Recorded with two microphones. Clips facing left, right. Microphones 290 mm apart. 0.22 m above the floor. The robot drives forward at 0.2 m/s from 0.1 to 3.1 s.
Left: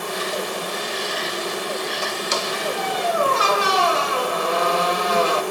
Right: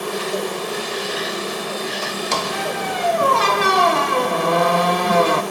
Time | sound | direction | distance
0.0 | an insect | 75° right (ahead or behind) | 9 m
2.3 | a squeak | 65° right (ahead or behind) | 0.6 m